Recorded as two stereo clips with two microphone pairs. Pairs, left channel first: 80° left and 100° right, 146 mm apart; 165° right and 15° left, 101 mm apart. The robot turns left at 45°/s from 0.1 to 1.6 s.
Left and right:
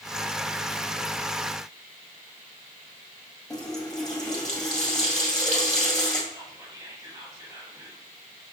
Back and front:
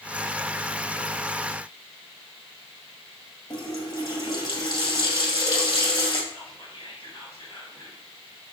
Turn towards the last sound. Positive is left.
turn(degrees=-165)